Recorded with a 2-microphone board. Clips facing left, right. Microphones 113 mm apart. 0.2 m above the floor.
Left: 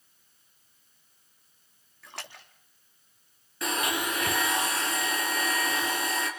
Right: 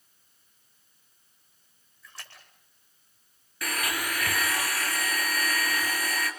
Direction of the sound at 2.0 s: 70° left (ahead or behind).